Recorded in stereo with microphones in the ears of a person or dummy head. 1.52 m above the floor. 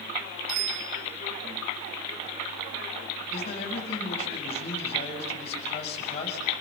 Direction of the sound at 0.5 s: 70° right (ahead or behind).